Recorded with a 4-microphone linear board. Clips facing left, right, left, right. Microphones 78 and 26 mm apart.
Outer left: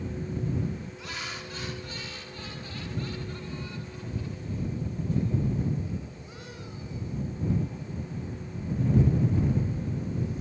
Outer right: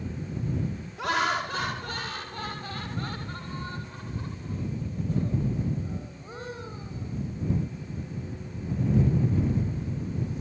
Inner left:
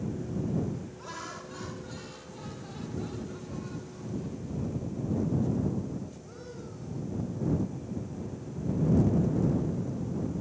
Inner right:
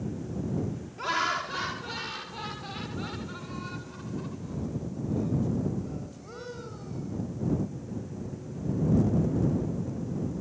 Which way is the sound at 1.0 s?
75° right (ahead or behind).